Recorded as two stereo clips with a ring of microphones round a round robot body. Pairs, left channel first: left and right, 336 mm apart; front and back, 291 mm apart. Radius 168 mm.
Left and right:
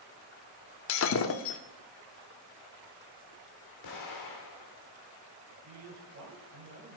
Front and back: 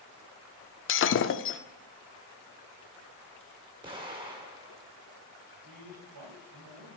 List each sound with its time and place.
0.9 s breaking glass: 45° left, 0.5 m
3.8 s an explosion: 110° left, 1.6 m
5.6 s a man speaking: 145° right, 2.5 m